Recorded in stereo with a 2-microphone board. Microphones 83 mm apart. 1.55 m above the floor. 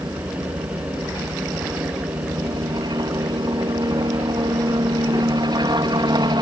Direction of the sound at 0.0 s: 60° right (ahead or behind).